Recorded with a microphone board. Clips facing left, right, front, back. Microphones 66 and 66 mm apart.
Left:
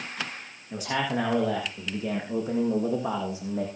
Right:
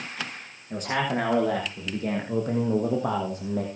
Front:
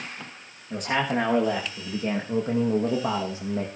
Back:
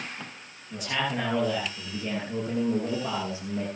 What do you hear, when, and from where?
0.7 s a man speaking: 45° right, 8 m; by 3.7 s 55° right, 4 m